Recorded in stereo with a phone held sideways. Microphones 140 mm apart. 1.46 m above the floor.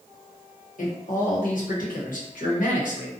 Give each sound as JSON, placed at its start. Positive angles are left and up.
{"t": 0.8, "sound": "a man speaking", "side_deg": 70, "distance_m": 1.0}